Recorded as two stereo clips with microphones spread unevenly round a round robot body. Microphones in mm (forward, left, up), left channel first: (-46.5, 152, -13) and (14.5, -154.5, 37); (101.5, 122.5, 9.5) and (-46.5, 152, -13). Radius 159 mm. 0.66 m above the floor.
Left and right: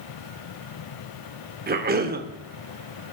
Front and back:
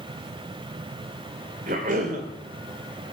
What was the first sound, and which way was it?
A cough, 145° right.